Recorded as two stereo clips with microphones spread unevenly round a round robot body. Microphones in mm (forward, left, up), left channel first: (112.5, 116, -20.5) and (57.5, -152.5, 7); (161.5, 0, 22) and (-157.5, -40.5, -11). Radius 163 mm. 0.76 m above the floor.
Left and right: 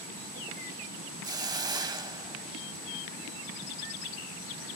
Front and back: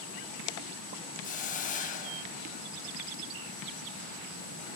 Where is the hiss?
40° right, 0.7 m.